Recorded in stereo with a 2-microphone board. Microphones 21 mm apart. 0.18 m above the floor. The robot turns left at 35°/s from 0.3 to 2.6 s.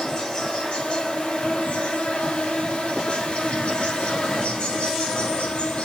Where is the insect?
145° left, 5 m; by 5.9 s 65° left, 5 m.